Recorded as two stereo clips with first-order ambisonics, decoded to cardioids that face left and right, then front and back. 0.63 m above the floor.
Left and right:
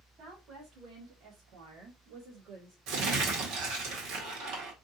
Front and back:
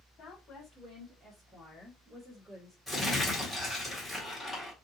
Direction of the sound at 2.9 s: 85° right.